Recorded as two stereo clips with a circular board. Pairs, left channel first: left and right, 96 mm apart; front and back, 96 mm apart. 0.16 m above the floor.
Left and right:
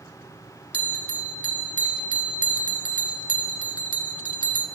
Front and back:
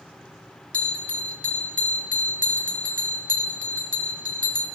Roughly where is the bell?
Ahead right.